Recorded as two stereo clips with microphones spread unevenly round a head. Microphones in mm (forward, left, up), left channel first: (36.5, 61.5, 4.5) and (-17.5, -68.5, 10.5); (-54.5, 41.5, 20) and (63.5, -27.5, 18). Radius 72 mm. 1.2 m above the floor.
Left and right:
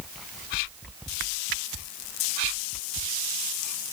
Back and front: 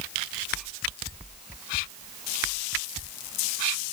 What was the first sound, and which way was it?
Only background noise.